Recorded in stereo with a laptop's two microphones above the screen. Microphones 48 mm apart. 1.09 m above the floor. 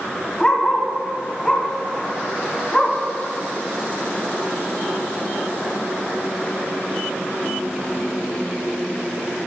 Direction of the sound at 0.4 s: 15° left (ahead or behind).